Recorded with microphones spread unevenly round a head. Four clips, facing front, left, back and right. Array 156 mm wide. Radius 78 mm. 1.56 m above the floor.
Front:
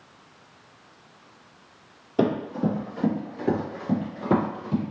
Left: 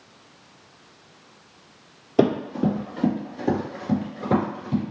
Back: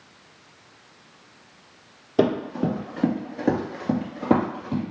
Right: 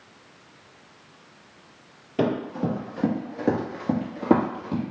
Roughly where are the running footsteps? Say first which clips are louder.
Left 4 dB, back 2 dB; behind left.